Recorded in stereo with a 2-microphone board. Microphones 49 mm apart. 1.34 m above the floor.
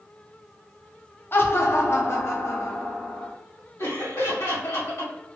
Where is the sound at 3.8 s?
75° left (ahead or behind), 1.8 m.